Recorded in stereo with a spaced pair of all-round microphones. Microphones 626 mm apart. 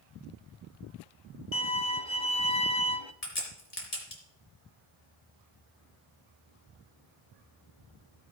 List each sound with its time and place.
1.5 s a violin: 50° left (ahead or behind), 0.7 m
3.2 s a crack: 70° left (ahead or behind), 3.5 m